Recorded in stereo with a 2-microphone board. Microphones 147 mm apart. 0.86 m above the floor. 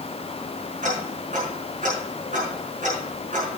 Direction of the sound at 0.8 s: 60° right (ahead or behind).